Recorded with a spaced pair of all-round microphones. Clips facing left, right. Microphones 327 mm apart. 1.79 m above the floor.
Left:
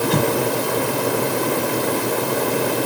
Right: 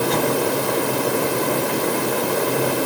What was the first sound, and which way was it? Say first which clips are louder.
An explosion: left 1 dB; 35° left (ahead or behind).